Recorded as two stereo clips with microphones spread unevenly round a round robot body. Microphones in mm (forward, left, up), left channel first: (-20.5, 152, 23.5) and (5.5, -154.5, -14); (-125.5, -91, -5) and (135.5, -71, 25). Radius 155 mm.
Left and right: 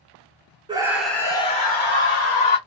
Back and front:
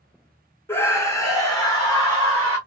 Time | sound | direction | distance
0.7 | a scream | 120° right | 1.0 m